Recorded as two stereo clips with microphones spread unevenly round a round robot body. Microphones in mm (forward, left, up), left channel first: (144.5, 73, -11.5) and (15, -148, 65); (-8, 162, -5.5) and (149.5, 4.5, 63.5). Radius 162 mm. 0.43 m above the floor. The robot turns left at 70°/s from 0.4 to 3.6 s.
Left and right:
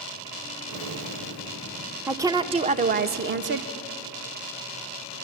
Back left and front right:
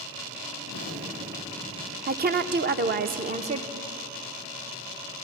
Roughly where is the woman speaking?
Ahead.